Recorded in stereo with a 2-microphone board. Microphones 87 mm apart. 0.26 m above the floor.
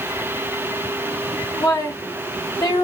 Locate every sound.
1.6 s a woman speaking: 40° left (ahead or behind), 2 m